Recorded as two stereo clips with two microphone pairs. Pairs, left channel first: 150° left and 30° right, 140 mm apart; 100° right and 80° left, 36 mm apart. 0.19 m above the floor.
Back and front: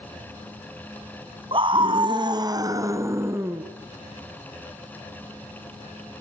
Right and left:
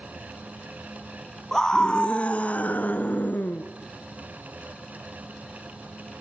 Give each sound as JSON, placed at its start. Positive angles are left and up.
{"t": 1.5, "sound": "a scream", "azimuth_deg": -35, "distance_m": 1.6}